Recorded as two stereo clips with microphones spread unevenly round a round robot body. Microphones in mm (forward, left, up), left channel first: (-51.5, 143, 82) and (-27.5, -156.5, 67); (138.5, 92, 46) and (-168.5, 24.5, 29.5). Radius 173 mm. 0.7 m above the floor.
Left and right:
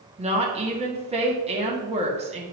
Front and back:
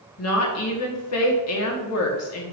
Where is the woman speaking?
20° right, 1.7 m.